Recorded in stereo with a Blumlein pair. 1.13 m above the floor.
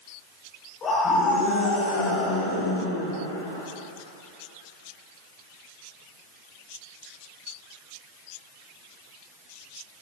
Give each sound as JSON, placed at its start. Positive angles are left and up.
{"t": 0.8, "sound": "a scream", "azimuth_deg": 25, "distance_m": 5.0}